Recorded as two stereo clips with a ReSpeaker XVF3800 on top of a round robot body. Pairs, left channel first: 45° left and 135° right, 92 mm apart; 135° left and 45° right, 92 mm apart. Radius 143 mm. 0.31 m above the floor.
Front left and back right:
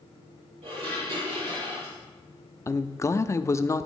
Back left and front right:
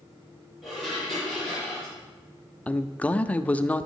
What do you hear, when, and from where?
0.6 s dishes clattering: 140° right, 7.5 m
2.7 s a man speaking: 70° left, 0.9 m